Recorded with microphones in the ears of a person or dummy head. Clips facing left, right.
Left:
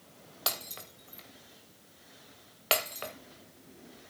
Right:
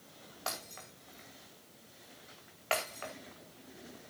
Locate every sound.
0.5 s breaking glass: 50° left (ahead or behind), 2.5 m